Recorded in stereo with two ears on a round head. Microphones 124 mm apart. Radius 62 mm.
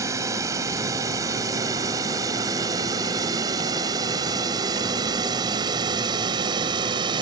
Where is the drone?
25° right (ahead or behind); by 7.2 s 35° right (ahead or behind).